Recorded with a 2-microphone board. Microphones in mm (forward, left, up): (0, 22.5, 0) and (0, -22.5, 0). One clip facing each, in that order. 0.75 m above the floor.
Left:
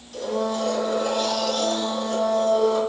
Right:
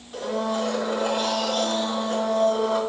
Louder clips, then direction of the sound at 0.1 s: Left 1 dB; 20° right (ahead or behind).